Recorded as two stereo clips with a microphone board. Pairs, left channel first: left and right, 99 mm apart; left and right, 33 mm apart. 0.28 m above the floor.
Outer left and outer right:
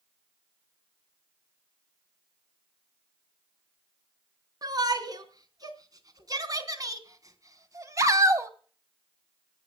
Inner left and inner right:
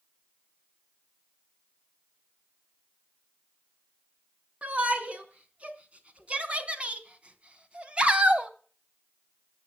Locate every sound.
4.6 s a shout: 40° right (ahead or behind), 4 m; by 8.5 s 30° right (ahead or behind), 2.0 m